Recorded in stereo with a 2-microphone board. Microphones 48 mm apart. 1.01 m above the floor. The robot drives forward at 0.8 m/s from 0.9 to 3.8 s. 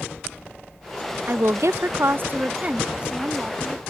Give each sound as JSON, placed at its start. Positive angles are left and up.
{"t": 1.3, "sound": "a woman speaking", "side_deg": -50}